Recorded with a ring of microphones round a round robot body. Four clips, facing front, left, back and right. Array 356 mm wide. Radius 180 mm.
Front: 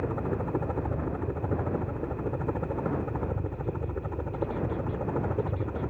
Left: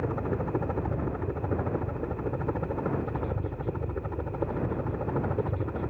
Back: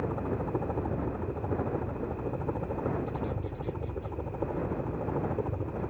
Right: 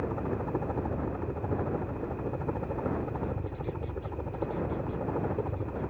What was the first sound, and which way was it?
A helicopter, 60° left.